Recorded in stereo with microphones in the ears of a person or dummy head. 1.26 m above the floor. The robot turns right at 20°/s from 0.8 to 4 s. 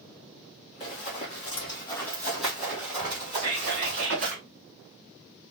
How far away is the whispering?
About 1.5 m.